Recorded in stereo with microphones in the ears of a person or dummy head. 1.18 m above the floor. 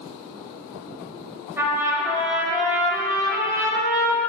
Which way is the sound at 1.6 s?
10° right (ahead or behind).